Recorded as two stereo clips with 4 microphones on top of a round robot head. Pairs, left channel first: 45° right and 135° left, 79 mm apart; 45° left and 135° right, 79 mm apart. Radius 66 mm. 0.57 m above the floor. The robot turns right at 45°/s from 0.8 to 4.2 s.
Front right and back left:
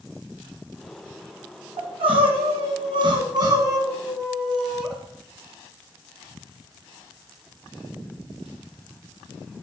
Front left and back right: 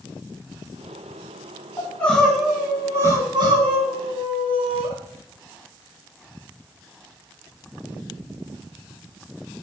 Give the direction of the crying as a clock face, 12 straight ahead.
8 o'clock.